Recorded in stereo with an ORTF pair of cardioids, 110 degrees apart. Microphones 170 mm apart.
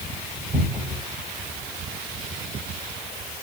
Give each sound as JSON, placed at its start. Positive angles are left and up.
{"t": 0.5, "sound": "a cupboard door", "azimuth_deg": -10, "distance_m": 5.0}